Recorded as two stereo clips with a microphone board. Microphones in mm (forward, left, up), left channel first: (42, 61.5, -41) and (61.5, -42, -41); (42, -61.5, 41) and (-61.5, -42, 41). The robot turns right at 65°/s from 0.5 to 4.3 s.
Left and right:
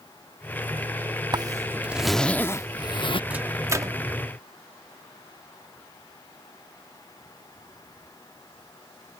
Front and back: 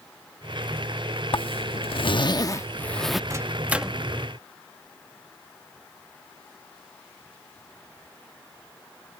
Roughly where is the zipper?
Ahead right.